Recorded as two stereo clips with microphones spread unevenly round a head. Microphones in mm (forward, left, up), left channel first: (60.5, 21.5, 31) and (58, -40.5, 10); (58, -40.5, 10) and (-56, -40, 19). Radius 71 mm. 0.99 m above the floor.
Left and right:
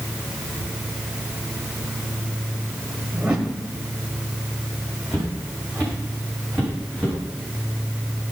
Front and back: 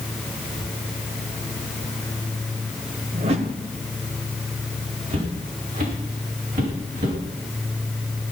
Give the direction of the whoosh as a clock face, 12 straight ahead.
6 o'clock.